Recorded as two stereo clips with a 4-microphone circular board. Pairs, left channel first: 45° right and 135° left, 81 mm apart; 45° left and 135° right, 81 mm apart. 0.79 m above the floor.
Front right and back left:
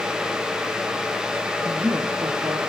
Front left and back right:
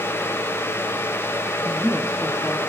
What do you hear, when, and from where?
1.6 s a woman speaking: 125° left, 1.5 m